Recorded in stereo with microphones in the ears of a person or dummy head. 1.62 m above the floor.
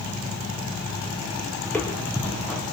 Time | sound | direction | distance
1.6 | footsteps | 5° left (ahead or behind) | 4 m